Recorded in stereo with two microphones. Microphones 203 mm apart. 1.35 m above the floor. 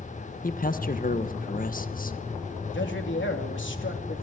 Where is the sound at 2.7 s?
75° left (ahead or behind), 3 m.